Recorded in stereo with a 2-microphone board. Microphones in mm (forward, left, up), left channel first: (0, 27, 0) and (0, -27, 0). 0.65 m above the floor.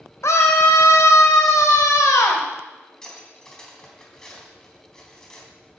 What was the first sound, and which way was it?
A scream, 65° left (ahead or behind).